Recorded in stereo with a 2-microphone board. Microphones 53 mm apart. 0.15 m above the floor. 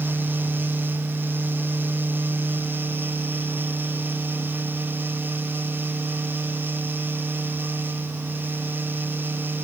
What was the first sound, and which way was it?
Only background noise.